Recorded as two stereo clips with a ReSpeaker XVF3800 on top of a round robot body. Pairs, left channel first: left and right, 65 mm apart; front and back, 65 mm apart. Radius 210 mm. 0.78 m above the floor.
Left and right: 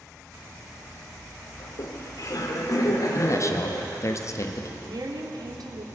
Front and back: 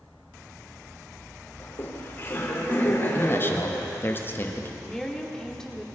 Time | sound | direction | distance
1.6 | laughter | 55° left | 3.5 m
3.1 | a man speaking | 55° left | 2 m
4.8 | a woman speaking | 80° right | 3 m